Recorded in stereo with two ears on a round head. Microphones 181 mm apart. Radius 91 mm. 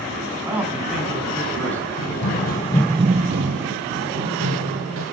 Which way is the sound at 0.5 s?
10° right (ahead or behind).